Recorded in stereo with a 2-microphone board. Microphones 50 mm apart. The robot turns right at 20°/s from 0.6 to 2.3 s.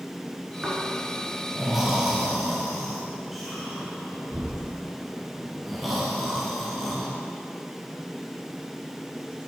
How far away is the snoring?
About 1.5 m.